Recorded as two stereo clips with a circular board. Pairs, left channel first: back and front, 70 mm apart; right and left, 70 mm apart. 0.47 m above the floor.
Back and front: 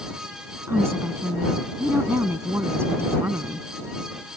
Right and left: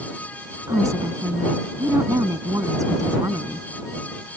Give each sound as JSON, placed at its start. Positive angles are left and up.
{"t": 0.7, "sound": "a woman speaking", "azimuth_deg": 55}